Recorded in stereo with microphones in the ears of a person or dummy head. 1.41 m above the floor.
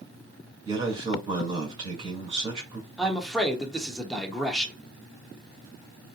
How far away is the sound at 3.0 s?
About 0.8 m.